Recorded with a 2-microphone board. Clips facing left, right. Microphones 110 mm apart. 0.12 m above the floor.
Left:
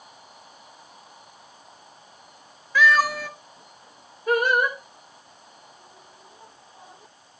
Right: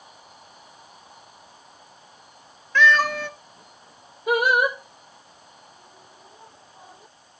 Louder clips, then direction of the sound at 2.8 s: Even; 5° left (ahead or behind).